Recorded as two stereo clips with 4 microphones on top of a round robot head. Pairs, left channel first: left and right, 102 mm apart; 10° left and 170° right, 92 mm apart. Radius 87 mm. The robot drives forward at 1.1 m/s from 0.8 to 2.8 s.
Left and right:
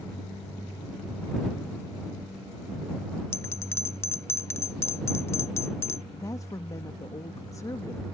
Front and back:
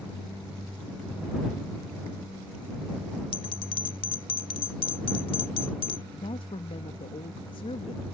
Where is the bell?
25° left.